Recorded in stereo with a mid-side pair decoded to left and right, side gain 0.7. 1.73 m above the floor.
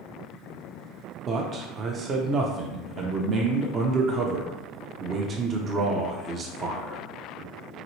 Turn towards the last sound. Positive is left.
turn(degrees=-40)